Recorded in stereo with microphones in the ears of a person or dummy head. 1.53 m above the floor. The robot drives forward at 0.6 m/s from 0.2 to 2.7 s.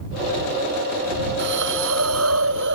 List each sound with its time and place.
1.4 s a hiss: 60° right (ahead or behind); by 2.8 s 65° right (ahead or behind)